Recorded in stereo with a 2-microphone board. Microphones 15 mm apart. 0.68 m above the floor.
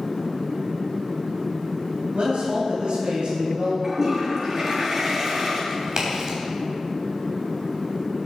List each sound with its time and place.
2.1 s a man speaking: 65° right (ahead or behind), 3.5 m
3.8 s a toilet flushing: 20° right (ahead or behind), 5 m
5.7 s a crack: 40° right (ahead or behind), 3.5 m